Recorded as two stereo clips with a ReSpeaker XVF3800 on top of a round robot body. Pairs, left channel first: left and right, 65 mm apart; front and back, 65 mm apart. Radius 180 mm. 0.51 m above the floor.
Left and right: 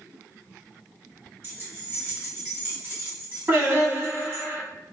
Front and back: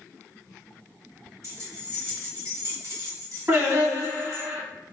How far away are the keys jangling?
About 1.3 m.